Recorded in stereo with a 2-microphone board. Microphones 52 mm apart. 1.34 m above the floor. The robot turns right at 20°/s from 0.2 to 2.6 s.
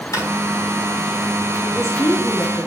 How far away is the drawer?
About 3.5 m.